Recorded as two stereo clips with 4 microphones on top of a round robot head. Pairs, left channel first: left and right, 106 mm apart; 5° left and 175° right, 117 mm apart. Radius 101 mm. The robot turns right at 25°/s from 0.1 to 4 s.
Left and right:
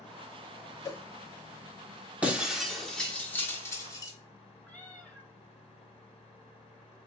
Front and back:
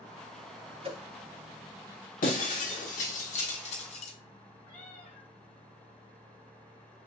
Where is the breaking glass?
10° right, 1.4 m; by 4.1 s 35° left, 1.4 m.